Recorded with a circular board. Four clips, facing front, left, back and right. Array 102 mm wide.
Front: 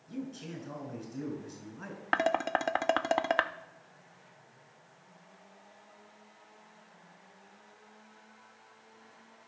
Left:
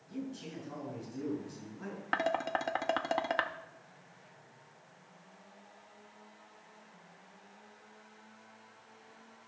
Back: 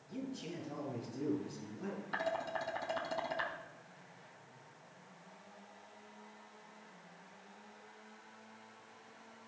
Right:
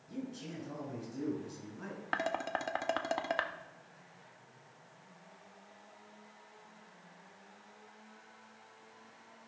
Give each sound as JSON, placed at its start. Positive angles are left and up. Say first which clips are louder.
{"t": 0.1, "sound": "a man speaking", "louder": "left 1 dB, front 3 dB", "azimuth_deg": -10, "distance_m": 5.0}
{"t": 2.1, "sound": "dishes clattering", "louder": "left 3 dB, front 10 dB", "azimuth_deg": 5, "distance_m": 0.5}